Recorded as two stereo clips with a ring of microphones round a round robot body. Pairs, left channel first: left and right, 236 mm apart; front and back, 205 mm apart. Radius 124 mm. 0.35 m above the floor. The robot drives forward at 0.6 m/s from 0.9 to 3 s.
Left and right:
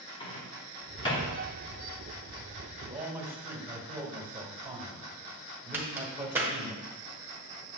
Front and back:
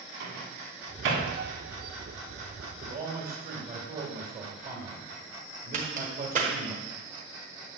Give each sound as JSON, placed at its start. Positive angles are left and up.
{"t": 0.2, "sound": "a microwave", "azimuth_deg": 160, "distance_m": 2.5}
{"t": 2.8, "sound": "a man speaking", "azimuth_deg": -165, "distance_m": 1.8}
{"t": 5.7, "sound": "a crack", "azimuth_deg": -165, "distance_m": 1.6}